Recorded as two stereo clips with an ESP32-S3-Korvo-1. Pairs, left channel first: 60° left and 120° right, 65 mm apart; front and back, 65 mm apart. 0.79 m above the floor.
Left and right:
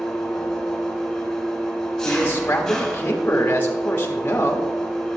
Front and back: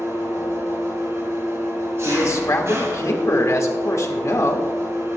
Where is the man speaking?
5° left, 1.2 m.